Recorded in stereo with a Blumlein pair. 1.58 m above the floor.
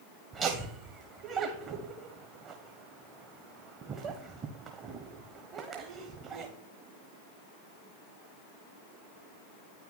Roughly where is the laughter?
Ahead right.